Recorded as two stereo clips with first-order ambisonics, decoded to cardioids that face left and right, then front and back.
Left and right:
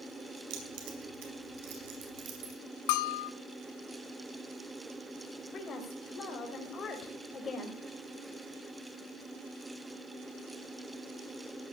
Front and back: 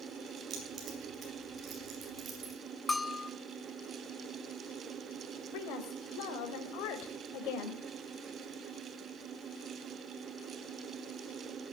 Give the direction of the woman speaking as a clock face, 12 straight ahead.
11 o'clock.